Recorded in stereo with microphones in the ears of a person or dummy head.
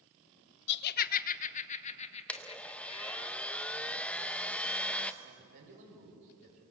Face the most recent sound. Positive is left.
turn(degrees=-65)  # may be behind; listen again after turning